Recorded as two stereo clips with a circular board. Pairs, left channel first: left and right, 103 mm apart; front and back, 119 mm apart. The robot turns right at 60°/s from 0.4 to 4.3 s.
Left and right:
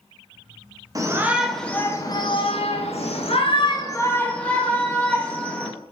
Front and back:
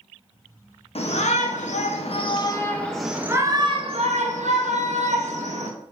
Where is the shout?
35° right, 0.6 m; by 5.7 s 170° left, 0.6 m.